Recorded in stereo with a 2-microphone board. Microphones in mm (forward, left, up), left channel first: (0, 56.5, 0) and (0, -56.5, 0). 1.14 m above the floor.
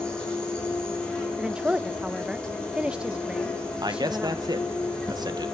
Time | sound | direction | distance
0.0 | an insect | 10° left (ahead or behind) | 8 m
1.4 | a woman speaking | 10° right (ahead or behind) | 0.8 m
3.8 | a man speaking | 40° right (ahead or behind) | 1.2 m